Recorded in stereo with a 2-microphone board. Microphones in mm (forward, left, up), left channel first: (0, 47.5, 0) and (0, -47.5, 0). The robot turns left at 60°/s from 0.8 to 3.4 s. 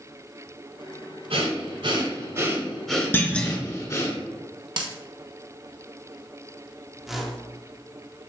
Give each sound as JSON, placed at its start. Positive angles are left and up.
{"t": 1.3, "sound": "breathing", "azimuth_deg": -90, "distance_m": 1.1}
{"t": 3.1, "sound": "a clunk", "side_deg": 20, "distance_m": 0.6}
{"t": 4.8, "sound": "a dropped coin", "side_deg": -60, "distance_m": 0.7}
{"t": 7.0, "sound": "a whoosh", "side_deg": -5, "distance_m": 0.8}